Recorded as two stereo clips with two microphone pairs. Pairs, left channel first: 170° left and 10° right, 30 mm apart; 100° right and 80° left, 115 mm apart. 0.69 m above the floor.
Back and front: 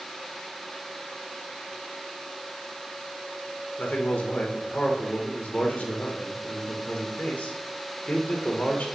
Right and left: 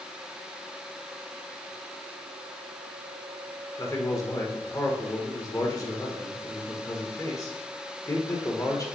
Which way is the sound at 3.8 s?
160° right.